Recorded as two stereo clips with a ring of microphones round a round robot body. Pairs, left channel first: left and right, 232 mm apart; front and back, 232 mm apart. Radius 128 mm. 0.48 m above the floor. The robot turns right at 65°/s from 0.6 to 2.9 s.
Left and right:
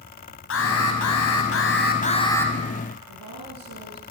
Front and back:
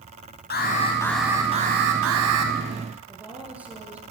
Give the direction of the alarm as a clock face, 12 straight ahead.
10 o'clock.